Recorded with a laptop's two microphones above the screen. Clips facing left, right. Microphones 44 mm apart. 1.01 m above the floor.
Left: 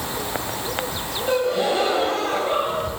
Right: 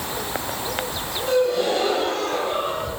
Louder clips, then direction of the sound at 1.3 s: Right 1 dB; 10° left (ahead or behind).